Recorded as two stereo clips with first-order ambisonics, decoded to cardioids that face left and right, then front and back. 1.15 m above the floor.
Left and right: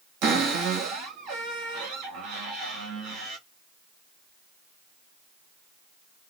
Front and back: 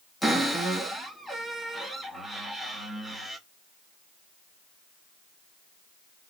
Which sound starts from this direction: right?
A cupboard door, at 0.2 s.